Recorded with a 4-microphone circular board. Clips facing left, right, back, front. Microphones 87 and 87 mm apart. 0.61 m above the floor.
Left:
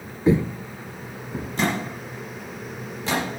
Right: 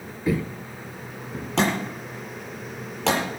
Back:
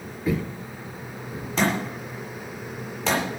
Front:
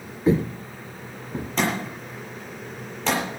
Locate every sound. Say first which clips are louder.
0.3 s footsteps: left 6 dB, front 6 dB; 40° left, 0.7 m; by 1.5 s 15° left, 1.9 m
1.6 s a thud: right 2 dB, back 2 dB; 90° right, 8.5 m